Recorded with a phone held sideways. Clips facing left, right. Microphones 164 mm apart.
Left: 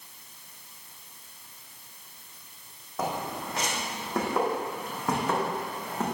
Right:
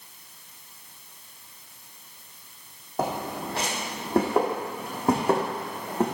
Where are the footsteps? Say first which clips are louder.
Right 3 dB; 30° right (ahead or behind), 3 m.